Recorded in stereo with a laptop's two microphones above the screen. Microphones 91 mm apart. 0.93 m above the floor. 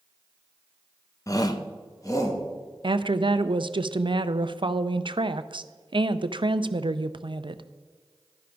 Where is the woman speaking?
60° right (ahead or behind), 0.5 m.